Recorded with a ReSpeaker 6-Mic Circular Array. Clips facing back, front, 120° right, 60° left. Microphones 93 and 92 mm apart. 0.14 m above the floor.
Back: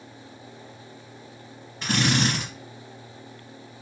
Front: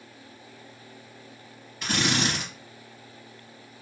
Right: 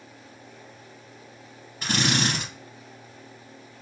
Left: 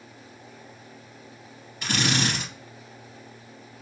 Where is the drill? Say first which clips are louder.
Back 3 dB, right 1 dB; 135° right, 2.5 m.